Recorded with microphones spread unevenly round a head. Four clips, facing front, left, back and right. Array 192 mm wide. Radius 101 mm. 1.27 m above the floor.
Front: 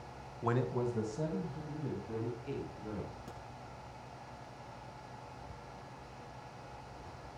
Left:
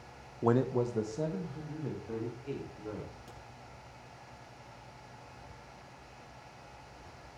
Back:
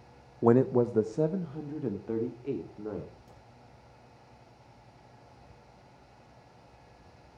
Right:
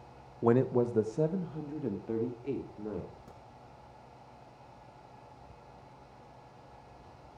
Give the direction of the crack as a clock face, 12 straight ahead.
12 o'clock.